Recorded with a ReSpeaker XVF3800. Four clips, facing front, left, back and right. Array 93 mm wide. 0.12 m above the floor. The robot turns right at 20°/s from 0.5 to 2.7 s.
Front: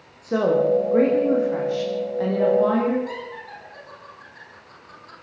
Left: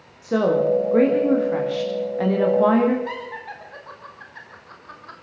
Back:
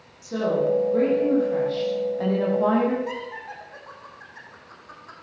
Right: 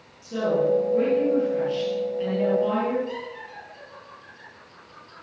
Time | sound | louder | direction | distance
0.2 | a woman speaking | left 4 dB, front 4 dB | 55° left | 7.5 m
3.1 | laughter | left 3 dB, back 1 dB | 110° left | 8 m